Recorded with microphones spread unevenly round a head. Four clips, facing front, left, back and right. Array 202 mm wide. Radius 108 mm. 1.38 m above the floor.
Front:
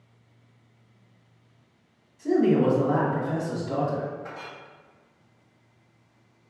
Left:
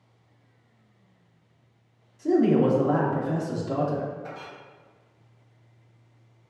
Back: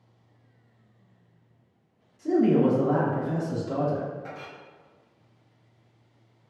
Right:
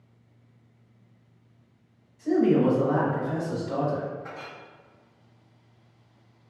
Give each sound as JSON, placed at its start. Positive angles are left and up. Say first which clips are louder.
{"t": 2.2, "sound": "a man speaking", "louder": "left 1 dB, even", "azimuth_deg": 75, "distance_m": 1.1}
{"t": 4.2, "sound": "a clink", "louder": "left 1 dB, front 1 dB", "azimuth_deg": 140, "distance_m": 0.9}